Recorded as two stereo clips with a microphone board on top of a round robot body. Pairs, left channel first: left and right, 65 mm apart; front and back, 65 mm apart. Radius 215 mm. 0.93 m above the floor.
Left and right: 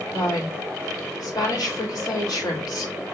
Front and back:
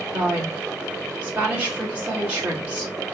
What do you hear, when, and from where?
0.1 s a woman speaking: 110° left, 3 m